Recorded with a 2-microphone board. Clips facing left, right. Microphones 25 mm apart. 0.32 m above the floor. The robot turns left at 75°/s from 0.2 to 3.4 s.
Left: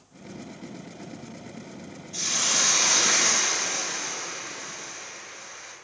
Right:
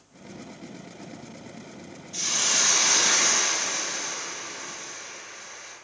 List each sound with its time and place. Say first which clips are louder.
2.1 s a hiss: even; centre (ahead or behind), 1.0 m; by 5.8 s 20° right (ahead or behind), 1.0 m